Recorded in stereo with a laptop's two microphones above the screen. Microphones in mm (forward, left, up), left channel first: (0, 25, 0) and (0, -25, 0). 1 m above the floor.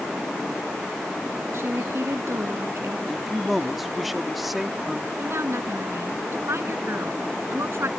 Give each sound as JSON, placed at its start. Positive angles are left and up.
{"t": 1.5, "sound": "a woman speaking", "side_deg": -55}
{"t": 3.1, "sound": "a man speaking", "side_deg": -5}
{"t": 5.2, "sound": "a woman speaking", "side_deg": -60}